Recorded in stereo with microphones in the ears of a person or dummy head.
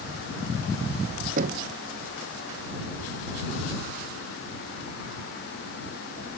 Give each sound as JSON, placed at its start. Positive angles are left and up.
{"t": 1.4, "sound": "knocking", "side_deg": -55}